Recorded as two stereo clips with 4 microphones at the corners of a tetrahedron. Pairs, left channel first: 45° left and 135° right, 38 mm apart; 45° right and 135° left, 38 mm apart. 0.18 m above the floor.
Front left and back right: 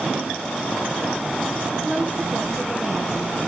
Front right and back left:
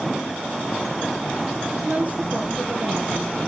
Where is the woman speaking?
Straight behind, 3 m.